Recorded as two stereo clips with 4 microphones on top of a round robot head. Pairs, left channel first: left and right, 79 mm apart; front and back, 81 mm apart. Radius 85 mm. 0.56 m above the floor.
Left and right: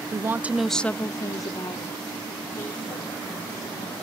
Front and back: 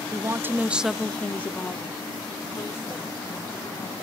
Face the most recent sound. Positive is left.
turn(degrees=60)